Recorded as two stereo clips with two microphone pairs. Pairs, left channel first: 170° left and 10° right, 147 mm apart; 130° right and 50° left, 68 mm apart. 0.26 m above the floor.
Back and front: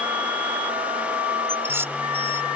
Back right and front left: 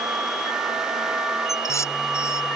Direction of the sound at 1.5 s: 85° right.